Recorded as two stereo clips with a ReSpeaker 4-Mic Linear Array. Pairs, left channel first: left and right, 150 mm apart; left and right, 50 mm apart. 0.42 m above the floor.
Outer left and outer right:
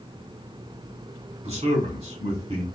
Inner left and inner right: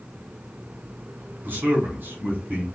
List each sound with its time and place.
1.4 s a man speaking: 45° right (ahead or behind), 1.2 m